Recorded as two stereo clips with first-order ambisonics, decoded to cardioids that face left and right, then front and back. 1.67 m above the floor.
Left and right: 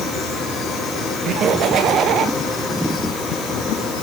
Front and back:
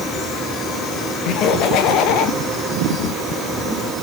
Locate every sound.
1.2 s laughter: 40° right, 1.9 m